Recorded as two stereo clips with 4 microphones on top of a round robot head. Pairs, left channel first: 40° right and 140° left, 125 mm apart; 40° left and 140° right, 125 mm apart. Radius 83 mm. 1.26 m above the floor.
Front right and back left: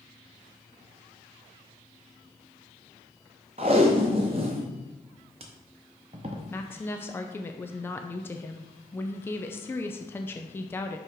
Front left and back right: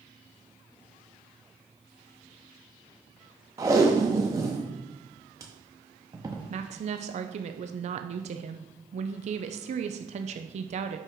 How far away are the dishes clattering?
I don't hear dishes clattering.